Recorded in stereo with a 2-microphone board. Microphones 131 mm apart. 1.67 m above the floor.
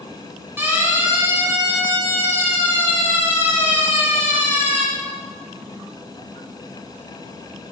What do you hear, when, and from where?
0.6 s a siren: 15° right (ahead or behind), 8 m